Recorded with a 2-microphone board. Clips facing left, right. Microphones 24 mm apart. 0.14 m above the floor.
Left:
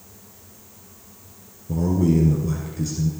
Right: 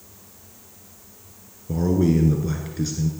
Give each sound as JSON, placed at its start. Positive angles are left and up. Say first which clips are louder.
{"t": 1.7, "sound": "a man speaking", "louder": "even", "side_deg": -30, "distance_m": 1.5}